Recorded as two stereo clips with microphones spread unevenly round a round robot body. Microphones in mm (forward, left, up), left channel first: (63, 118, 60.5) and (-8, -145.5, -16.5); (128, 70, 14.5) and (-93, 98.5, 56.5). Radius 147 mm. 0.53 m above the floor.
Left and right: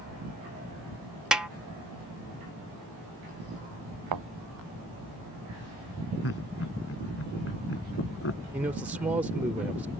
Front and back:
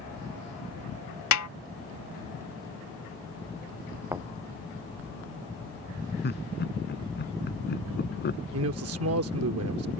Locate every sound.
1.3 s a snare drum: 10° right
4.1 s a thud: 105° right
6.2 s laughter: 35° left
8.5 s a man speaking: straight behind